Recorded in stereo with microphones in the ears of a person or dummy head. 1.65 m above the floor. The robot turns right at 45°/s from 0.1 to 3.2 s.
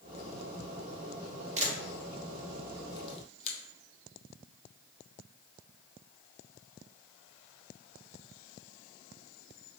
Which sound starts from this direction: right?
A camera shutter, at 1.6 s.